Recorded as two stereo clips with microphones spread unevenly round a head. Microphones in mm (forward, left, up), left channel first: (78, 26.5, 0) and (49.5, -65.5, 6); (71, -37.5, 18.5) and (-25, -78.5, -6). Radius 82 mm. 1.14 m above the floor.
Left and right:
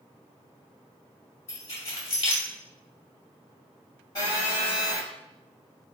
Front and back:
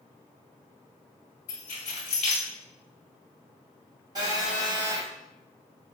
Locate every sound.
1.5 s keys jangling: 55° left, 1.7 m
4.2 s a phone buzzing: 140° left, 1.2 m